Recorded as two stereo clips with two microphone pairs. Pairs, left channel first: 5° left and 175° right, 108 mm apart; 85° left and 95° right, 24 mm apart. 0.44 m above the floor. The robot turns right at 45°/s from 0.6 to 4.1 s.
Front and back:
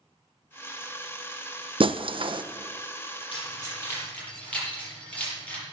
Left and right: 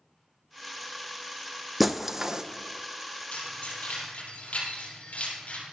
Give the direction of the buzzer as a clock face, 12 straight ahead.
No buzzer in this recording.